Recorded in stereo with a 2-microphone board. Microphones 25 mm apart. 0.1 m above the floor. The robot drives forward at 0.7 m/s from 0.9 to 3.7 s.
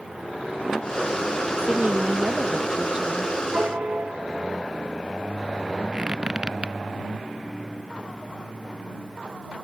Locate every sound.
1.6 s a woman speaking: 40° right (ahead or behind); by 3.3 s 30° right (ahead or behind)
3.5 s a piano: 50° right (ahead or behind)
5.9 s a squeak: 30° right (ahead or behind)